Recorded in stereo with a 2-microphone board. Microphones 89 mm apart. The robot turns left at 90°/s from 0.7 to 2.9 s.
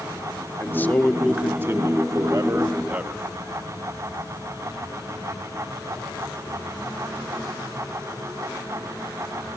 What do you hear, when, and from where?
0.6 s a man speaking: 45° left, 0.7 m; by 3.2 s 155° right, 0.7 m